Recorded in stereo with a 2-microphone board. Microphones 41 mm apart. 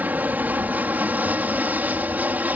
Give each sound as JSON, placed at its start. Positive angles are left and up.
{"t": 0.0, "sound": "an aircraft", "side_deg": -45}